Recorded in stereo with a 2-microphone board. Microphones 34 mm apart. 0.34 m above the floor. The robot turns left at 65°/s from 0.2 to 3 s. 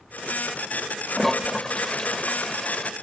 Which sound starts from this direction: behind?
A toilet flushing, at 1.1 s.